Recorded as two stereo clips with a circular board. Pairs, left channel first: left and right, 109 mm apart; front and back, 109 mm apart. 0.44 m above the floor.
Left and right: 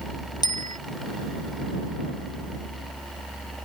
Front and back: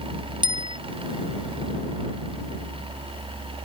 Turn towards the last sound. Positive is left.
turn(degrees=140)